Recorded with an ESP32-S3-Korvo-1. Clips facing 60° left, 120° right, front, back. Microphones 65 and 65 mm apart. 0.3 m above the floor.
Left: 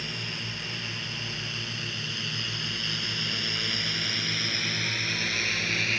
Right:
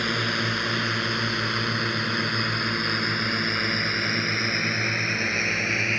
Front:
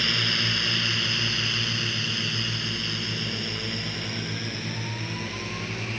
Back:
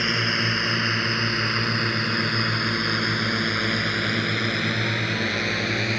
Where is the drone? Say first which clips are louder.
Right 11 dB, back 4 dB; 120° right; by 6.0 s straight behind.